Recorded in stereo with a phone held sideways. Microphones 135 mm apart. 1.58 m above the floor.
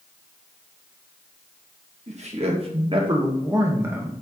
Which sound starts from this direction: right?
A man speaking, at 2.1 s.